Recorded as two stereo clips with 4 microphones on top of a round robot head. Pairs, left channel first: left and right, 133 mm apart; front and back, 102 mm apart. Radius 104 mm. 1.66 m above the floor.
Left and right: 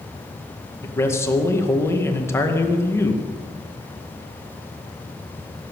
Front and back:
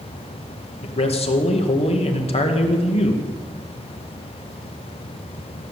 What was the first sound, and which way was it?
A man speaking, 20° left.